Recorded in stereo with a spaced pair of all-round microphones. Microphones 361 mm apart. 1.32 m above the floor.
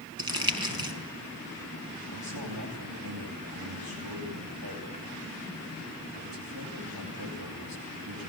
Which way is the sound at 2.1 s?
85° right.